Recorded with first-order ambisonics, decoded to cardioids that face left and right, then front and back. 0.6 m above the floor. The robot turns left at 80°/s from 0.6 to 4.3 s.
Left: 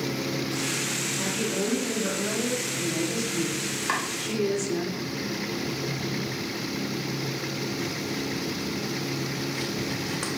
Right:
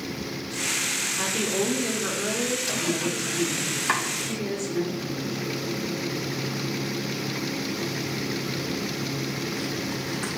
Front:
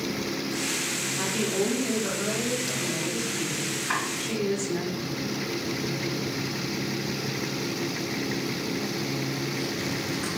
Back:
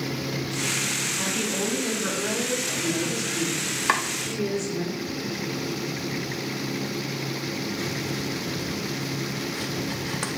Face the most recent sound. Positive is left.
turn(degrees=155)